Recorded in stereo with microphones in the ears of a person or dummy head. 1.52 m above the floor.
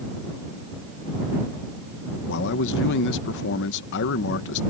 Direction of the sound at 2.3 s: 60° left (ahead or behind).